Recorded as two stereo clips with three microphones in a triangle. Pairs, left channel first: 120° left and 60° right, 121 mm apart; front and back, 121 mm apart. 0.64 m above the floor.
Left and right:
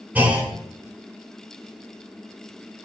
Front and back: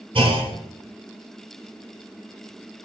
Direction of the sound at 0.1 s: 135° right.